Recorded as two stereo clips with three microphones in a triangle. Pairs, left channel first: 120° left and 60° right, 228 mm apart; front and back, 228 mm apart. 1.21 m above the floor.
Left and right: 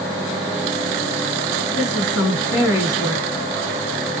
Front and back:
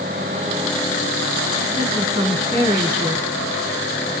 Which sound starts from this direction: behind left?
A woman speaking, at 1.8 s.